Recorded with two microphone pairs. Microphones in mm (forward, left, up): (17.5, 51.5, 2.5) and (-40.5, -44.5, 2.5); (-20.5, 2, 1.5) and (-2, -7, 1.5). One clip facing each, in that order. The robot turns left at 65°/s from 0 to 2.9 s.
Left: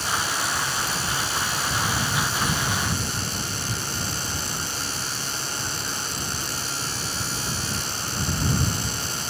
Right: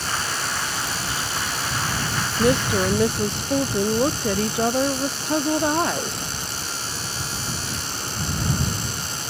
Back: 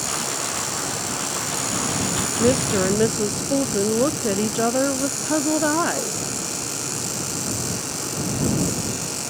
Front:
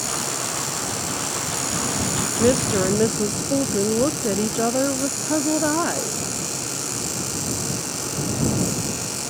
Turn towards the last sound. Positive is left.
turn(degrees=-130)